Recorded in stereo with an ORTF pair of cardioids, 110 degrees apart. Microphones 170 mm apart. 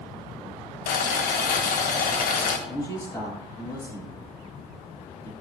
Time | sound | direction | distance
0.9 | boiling | 65° left | 1.7 m
2.7 | a man speaking | 25° left | 7 m